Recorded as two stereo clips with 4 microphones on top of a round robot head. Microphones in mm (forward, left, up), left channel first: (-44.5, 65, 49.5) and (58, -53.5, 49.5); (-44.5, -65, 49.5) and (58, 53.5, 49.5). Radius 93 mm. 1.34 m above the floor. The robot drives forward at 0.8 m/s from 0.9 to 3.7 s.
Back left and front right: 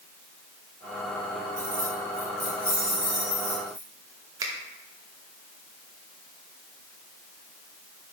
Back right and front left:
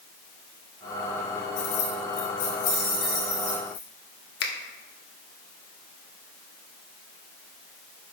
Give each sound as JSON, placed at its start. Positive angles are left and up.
{"t": 1.6, "sound": "keys jangling", "azimuth_deg": -120, "distance_m": 1.3}
{"t": 4.4, "sound": "a finger snap", "azimuth_deg": -120, "distance_m": 0.9}